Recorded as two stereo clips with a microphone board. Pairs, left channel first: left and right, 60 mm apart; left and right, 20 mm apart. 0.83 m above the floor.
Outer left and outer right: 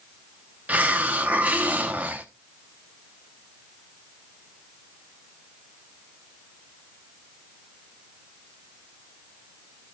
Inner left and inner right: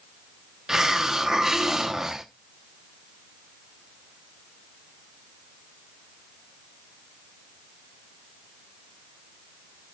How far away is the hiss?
About 0.9 m.